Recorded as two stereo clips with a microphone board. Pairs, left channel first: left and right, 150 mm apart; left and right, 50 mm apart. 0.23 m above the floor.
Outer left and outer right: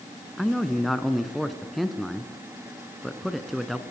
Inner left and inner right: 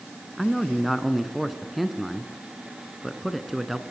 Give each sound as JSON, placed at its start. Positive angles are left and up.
{"t": 0.4, "sound": "a man speaking", "side_deg": 0, "distance_m": 2.0}